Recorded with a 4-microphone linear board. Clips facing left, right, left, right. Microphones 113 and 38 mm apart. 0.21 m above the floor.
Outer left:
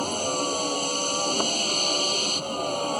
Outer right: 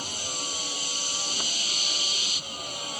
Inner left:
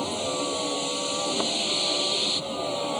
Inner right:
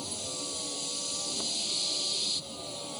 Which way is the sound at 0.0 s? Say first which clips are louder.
Outer left 11 dB, inner left 11 dB; 45° left (ahead or behind).